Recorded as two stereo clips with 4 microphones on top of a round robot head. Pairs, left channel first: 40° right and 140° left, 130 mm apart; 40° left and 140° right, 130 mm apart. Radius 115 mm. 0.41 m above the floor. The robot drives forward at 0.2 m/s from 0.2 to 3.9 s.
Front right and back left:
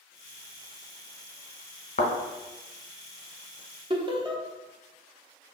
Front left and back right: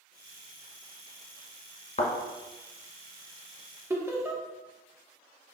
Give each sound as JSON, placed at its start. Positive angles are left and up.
{"t": 2.0, "sound": "a thud", "azimuth_deg": 0, "distance_m": 0.8}
{"t": 3.9, "sound": "laughter", "azimuth_deg": 160, "distance_m": 1.0}